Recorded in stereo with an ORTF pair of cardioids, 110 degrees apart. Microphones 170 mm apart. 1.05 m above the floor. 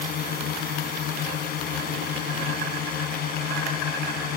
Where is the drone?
65° left.